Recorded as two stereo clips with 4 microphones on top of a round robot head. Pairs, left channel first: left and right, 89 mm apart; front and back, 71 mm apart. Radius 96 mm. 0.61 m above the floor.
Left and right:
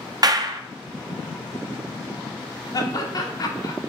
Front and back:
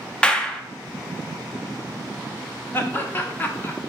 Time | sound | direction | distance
0.2 | a clap | 75° right | 0.7 m
2.7 | laughter | 55° left | 1.7 m